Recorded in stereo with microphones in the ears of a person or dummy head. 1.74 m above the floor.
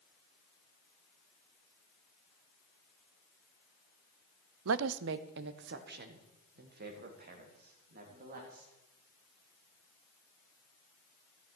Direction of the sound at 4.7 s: 80° right.